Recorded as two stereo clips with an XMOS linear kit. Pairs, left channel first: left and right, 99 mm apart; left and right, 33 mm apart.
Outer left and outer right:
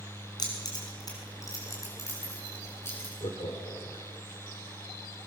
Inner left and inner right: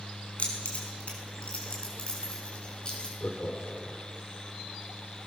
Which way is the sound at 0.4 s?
45° left (ahead or behind).